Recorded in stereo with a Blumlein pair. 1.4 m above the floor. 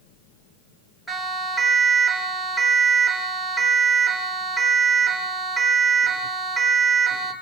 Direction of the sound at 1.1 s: 5° right.